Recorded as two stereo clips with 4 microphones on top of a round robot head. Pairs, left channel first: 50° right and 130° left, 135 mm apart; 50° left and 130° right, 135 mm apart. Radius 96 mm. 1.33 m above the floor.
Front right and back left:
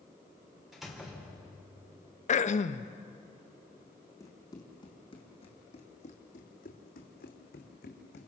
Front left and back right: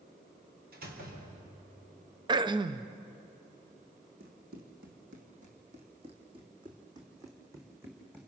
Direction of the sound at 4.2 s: 115° right.